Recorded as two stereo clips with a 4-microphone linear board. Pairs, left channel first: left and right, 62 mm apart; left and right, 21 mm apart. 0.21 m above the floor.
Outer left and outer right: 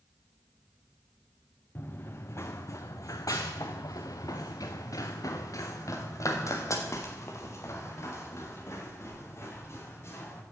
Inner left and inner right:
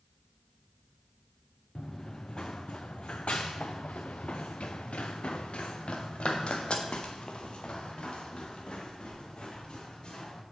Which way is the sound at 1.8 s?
35° left (ahead or behind).